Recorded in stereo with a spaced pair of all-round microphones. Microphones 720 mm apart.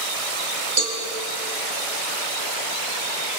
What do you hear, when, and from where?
0.8 s a cowbell: 35° right (ahead or behind), 1.9 m